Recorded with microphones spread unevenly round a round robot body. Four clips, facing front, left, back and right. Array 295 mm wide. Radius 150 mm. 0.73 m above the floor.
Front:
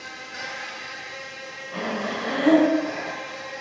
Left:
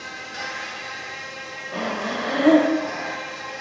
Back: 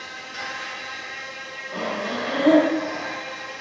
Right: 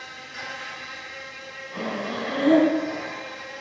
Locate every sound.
0.0 s an insect: 80° left, 1.5 m
1.7 s breathing: 95° left, 0.8 m